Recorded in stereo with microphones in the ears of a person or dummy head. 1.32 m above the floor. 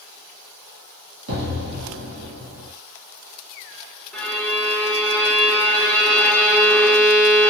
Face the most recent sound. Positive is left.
turn(degrees=5)  # may be behind; listen again after turning